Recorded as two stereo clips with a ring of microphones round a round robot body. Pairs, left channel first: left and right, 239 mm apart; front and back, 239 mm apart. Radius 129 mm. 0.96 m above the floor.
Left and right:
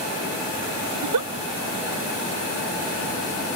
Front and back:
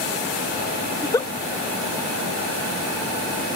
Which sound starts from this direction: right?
A giggle, at 0.9 s.